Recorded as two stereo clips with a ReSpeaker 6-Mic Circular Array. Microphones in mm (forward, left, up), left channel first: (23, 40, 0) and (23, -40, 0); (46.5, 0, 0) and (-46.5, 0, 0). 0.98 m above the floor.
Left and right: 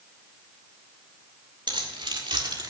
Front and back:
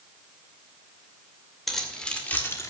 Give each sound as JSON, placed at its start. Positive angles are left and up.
{"t": 1.7, "sound": "keys jangling", "azimuth_deg": -85, "distance_m": 2.5}